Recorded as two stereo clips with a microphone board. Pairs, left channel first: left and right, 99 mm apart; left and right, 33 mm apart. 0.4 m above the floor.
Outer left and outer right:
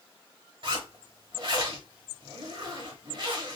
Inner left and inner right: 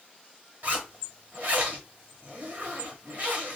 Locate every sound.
0.6 s a zipper: 50° right (ahead or behind), 1.3 m